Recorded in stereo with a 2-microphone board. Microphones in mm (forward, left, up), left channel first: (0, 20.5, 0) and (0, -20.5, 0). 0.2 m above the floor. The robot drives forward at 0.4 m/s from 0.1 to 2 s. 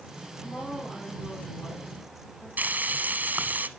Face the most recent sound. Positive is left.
turn(degrees=-45)  # may be behind; listen again after turning